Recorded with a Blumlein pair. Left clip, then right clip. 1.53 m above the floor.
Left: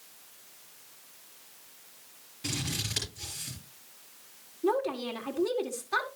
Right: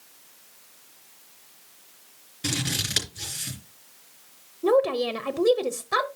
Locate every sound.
2.4 s scissors: 65° right, 3.5 m
4.6 s a woman speaking: 45° right, 0.9 m